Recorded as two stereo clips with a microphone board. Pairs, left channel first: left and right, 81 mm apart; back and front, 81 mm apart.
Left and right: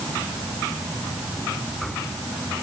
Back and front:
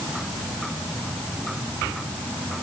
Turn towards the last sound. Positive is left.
No sound to turn to.